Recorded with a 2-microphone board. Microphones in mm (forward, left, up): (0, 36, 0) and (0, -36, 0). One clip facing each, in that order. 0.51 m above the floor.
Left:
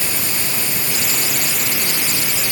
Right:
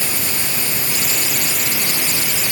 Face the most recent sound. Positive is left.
No sound to turn to.